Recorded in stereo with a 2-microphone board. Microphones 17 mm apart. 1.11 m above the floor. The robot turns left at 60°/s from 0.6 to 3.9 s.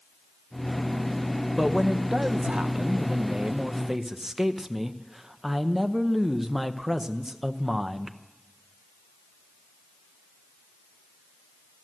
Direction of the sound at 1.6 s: 10° right.